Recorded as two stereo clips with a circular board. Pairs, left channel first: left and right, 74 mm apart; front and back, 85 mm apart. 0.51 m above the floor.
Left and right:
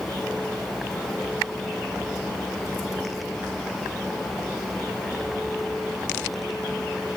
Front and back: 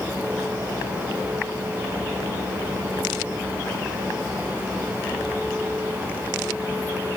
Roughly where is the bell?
No bell in this recording.